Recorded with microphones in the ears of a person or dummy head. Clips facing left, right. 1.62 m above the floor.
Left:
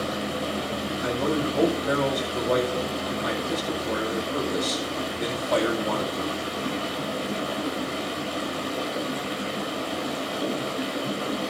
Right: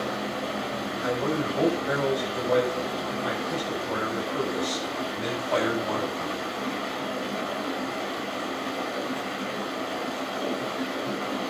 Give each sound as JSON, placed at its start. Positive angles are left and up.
{"t": 0.0, "sound": "running water", "side_deg": 45, "distance_m": 7.5}
{"t": 1.0, "sound": "a man speaking", "side_deg": 55, "distance_m": 9.0}